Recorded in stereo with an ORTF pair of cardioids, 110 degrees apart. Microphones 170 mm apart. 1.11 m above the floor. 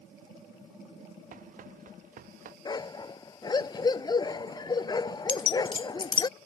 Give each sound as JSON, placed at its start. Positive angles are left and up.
{"t": 1.3, "sound": "running footsteps", "azimuth_deg": -50}
{"t": 2.6, "sound": "a dog barking", "azimuth_deg": 25}
{"t": 5.3, "sound": "keys jangling", "azimuth_deg": 30}